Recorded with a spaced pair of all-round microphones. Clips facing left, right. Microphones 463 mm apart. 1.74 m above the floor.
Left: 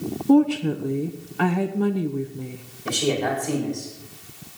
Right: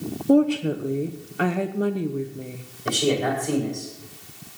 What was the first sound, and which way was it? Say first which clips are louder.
A woman speaking: left 1 dB; 10° left (ahead or behind).